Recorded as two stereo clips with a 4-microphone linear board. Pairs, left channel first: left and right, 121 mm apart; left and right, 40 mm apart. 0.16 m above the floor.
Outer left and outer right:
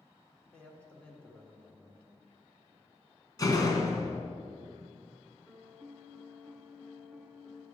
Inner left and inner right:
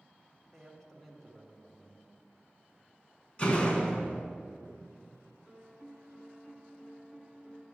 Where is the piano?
Centre (ahead or behind), 1.3 m.